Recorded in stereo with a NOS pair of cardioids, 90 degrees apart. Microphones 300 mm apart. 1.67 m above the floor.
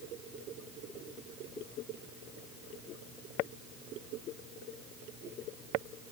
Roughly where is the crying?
I don't hear crying.